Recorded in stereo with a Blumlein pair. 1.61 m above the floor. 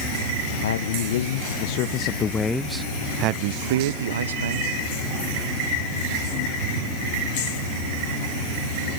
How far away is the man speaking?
About 1.2 m.